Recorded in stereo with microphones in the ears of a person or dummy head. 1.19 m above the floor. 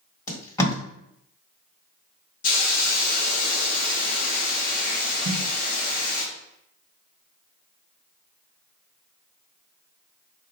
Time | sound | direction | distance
0.3 | tape being pulled | 20° left (ahead or behind) | 1.2 m
2.4 | a hiss | 40° left (ahead or behind) | 0.7 m
5.2 | a snare drum | 60° right (ahead or behind) | 0.7 m